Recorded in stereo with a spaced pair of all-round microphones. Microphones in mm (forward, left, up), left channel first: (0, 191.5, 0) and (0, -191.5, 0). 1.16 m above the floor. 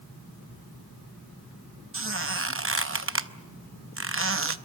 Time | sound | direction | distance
1.9 | a squeak | 35° right (ahead or behind) | 0.7 m